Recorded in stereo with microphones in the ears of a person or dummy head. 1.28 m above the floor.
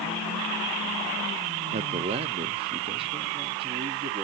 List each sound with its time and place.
1.7 s a man speaking: 35° right (ahead or behind), 0.5 m; by 4.2 s 25° right (ahead or behind), 1.7 m